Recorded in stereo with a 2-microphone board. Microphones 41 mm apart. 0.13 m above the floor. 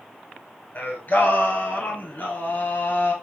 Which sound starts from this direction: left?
Singing, at 0.8 s.